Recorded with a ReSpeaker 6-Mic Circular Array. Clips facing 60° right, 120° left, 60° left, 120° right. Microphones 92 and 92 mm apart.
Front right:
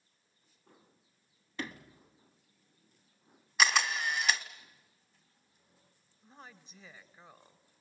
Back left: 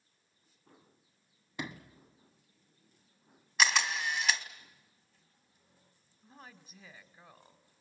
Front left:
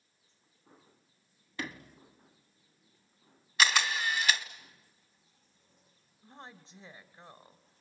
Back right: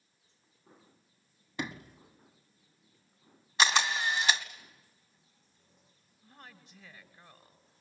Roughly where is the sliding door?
Behind.